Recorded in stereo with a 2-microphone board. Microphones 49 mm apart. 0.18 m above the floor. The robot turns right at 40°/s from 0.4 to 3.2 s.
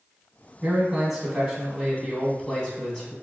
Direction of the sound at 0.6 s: 15° right (ahead or behind).